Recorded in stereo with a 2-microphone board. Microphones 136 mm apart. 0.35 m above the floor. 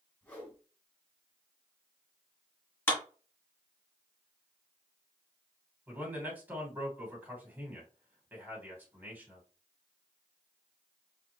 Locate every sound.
0.2 s a whoosh: 10° left (ahead or behind), 3.5 m
2.9 s a clap: 15° left (ahead or behind), 3 m
5.9 s a man speaking: 15° right (ahead or behind), 3 m